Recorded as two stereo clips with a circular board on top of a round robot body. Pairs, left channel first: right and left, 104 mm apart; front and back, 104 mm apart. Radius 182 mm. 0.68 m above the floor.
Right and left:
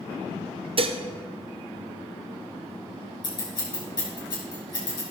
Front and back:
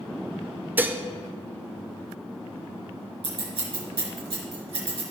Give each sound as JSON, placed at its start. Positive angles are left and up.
{"t": 0.8, "sound": "dishes clattering", "azimuth_deg": 110, "distance_m": 0.7}
{"t": 3.2, "sound": "scissors", "azimuth_deg": -145, "distance_m": 3.5}